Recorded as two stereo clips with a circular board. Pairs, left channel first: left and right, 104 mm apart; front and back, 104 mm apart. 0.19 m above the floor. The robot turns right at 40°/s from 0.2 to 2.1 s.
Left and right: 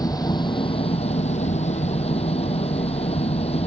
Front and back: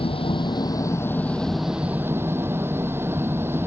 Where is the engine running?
35° left; by 3.7 s 110° left.